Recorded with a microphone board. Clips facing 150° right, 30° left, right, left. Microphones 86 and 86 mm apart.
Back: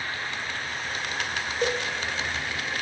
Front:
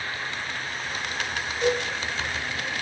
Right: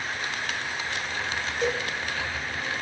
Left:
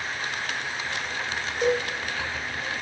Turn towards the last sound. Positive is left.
turn(degrees=165)